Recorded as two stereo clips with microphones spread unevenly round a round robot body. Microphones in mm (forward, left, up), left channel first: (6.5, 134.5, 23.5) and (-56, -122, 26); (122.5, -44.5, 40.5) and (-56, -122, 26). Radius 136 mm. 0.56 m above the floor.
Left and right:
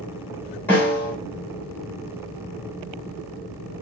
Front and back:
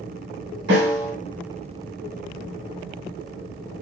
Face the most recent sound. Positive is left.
turn(degrees=160)